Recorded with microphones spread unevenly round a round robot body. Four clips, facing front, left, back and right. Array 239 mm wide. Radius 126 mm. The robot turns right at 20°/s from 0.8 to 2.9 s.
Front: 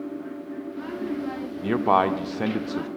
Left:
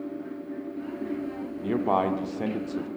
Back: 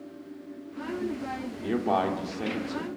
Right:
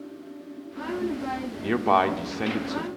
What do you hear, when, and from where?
1.6 s a man speaking: 50° right, 0.8 m; by 2.9 s 25° right, 0.8 m